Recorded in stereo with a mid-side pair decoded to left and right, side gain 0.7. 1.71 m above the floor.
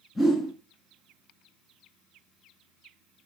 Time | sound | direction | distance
0.1 | a whoosh | 15° left | 2.5 m